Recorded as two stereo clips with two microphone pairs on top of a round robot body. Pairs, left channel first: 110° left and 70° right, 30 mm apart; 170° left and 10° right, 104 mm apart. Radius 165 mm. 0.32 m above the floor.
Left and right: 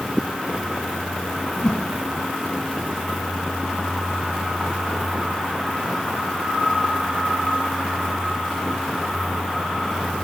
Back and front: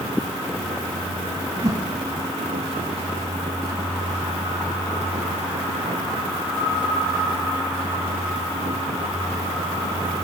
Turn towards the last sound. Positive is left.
turn(degrees=45)